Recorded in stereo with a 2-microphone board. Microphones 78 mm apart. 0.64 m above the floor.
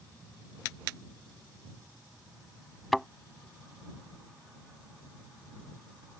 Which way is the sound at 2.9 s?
Centre (ahead or behind).